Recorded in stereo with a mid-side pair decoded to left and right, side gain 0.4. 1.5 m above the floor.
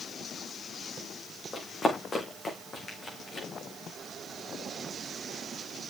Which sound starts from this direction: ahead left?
Running footsteps, at 1.5 s.